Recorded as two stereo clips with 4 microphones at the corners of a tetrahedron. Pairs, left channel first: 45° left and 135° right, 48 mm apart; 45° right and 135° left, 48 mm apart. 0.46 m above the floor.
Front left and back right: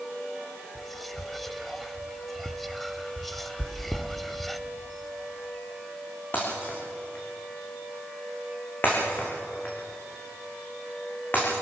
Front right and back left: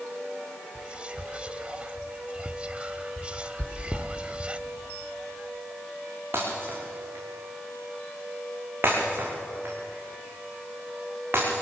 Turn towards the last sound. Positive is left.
turn(degrees=95)